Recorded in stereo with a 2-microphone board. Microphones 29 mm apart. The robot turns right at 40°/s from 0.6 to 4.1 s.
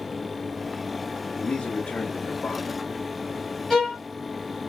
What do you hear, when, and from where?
1.4 s a man speaking: 70° left, 1.4 m; by 2.8 s 130° left, 1.4 m
3.7 s a violin: 15° left (ahead or behind), 2.5 m; by 4.0 s 30° left (ahead or behind), 2.5 m